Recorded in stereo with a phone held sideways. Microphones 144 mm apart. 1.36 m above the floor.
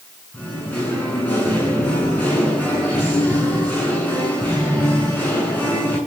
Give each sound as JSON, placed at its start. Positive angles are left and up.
{"t": 0.3, "sound": "singing", "side_deg": 15, "distance_m": 7.5}